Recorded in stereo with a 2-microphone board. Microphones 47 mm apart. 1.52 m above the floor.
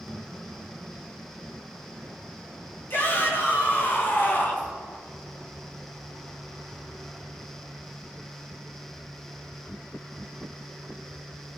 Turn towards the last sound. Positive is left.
turn(degrees=40)  # may be behind; listen again after turning